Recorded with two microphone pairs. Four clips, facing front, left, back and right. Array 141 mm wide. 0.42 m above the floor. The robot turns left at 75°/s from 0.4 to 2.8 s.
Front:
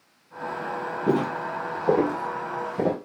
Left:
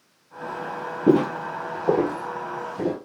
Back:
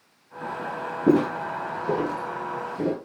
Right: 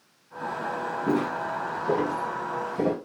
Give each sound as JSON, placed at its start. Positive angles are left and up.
{"t": 1.1, "sound": "footsteps", "azimuth_deg": 120, "distance_m": 0.6}